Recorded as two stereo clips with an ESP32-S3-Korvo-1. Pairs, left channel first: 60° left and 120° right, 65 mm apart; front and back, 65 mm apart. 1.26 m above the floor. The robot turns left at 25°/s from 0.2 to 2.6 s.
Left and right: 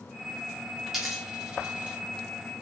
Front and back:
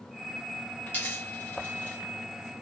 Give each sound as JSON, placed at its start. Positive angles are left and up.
{"t": 0.9, "sound": "a dropped coin", "azimuth_deg": -35, "distance_m": 0.9}